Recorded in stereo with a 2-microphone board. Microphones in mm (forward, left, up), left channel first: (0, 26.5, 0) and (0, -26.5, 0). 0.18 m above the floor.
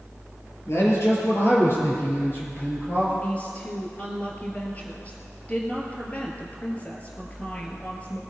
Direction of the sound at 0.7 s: 55° left (ahead or behind).